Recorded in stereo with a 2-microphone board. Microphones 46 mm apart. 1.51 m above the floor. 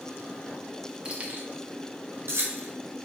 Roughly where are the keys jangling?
Right.